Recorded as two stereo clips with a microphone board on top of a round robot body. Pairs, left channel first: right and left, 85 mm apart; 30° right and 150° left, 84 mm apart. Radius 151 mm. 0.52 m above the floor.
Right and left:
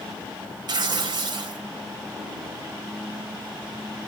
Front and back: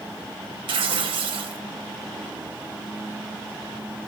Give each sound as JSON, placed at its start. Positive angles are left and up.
{"t": 0.7, "sound": "tearing paper", "azimuth_deg": 125, "distance_m": 1.1}